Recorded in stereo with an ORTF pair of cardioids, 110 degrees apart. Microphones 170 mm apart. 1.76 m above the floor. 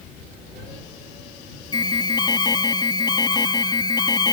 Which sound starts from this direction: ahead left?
An alarm, at 1.7 s.